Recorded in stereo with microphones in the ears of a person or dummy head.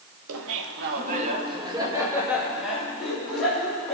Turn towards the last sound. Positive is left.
turn(degrees=5)  # may be behind; listen again after turning